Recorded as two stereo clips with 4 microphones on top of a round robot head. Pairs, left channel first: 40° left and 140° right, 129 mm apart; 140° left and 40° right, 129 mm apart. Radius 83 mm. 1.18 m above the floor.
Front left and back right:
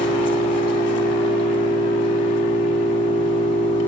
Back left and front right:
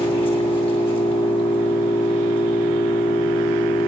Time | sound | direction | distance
0.0 | an engine running | 90° left | 2.5 m